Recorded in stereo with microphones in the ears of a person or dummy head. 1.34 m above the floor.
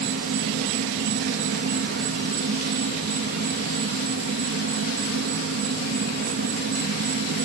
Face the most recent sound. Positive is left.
turn(degrees=-60)  # may be behind; listen again after turning